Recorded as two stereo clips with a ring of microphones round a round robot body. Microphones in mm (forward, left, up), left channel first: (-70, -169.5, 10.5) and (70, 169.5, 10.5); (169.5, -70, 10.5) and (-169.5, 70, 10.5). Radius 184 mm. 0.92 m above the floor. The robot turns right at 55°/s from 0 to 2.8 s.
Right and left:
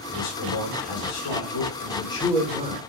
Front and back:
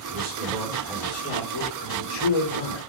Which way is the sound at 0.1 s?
150° right.